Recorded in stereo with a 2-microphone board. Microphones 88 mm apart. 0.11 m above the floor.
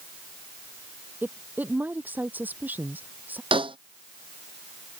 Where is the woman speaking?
20° right (ahead or behind).